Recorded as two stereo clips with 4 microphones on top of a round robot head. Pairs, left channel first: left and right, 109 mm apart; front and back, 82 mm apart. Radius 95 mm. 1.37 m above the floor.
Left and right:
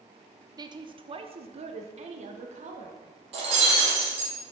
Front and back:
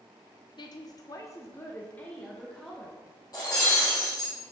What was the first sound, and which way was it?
A woman speaking, 35° right.